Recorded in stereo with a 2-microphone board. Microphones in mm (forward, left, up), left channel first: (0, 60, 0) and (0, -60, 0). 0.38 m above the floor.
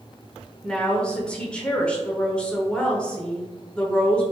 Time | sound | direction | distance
0.6 | a woman speaking | 10° left (ahead or behind) | 0.8 m